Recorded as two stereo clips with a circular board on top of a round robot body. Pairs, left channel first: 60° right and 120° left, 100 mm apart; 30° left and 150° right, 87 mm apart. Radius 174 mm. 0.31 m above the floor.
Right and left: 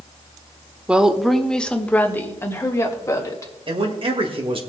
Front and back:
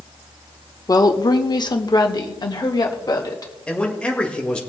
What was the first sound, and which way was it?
A woman speaking, 45° left.